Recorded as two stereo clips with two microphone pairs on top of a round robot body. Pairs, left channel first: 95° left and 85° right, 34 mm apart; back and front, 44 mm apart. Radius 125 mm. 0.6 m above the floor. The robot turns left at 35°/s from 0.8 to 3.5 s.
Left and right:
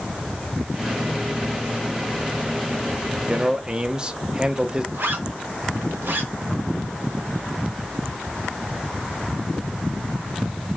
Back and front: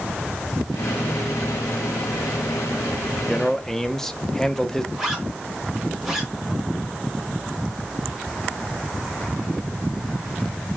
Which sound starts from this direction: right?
A zipper, at 4.9 s.